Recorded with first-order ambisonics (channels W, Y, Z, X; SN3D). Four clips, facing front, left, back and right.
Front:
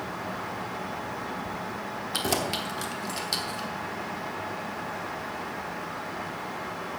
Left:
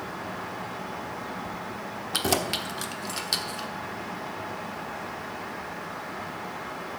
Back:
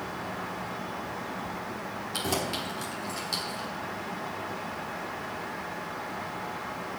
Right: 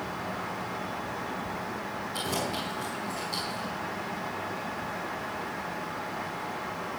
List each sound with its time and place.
2.1 s keys jangling: 70° left, 1.1 m